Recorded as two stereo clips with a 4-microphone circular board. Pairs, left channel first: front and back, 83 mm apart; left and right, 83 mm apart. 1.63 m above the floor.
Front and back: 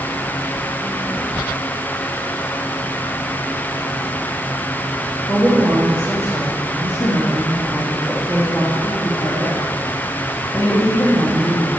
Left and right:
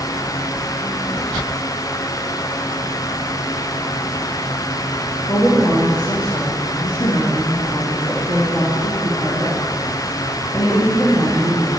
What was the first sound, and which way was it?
A woman speaking, 105° left.